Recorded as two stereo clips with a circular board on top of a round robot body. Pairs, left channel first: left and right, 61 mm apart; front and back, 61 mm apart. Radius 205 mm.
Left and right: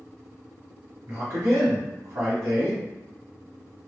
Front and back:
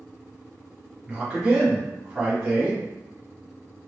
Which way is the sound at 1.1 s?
110° right.